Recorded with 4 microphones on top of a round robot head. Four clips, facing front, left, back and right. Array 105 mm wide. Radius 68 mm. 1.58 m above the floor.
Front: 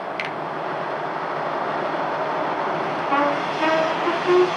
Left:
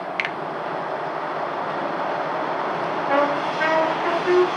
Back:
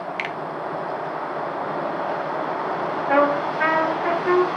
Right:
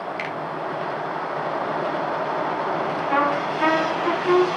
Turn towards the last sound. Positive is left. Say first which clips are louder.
# left 1 dB, back 3 dB
turn(degrees=150)